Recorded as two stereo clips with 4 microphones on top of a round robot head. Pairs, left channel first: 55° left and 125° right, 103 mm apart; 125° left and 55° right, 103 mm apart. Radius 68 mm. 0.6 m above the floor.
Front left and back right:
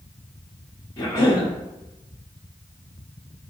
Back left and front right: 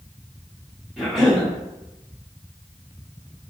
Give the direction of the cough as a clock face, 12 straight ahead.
11 o'clock.